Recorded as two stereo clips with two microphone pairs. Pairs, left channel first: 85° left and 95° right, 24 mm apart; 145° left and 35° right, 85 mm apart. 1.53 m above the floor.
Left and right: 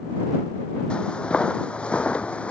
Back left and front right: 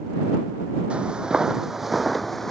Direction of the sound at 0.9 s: 40° left.